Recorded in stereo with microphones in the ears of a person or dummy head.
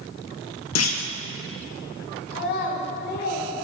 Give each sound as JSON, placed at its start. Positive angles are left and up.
{"t": 0.8, "sound": "a clunk", "side_deg": 80, "distance_m": 1.1}
{"t": 2.3, "sound": "a child speaking", "side_deg": 55, "distance_m": 3.5}